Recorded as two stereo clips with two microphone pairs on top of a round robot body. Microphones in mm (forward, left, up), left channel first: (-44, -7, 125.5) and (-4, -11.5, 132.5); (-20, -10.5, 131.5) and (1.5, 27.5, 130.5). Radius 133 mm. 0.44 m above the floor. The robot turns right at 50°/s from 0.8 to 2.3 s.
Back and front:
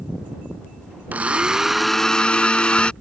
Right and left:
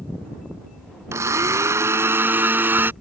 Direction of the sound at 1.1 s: 45° left.